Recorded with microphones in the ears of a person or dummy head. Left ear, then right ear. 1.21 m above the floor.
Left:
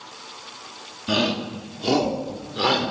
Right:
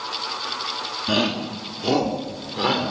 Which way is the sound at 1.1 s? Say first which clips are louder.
Left 1 dB; 15° right (ahead or behind).